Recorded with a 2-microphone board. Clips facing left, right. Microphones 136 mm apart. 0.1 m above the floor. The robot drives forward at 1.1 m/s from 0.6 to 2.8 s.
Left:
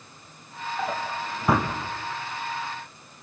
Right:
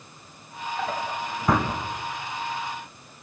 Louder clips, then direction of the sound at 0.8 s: Even; 5° left (ahead or behind).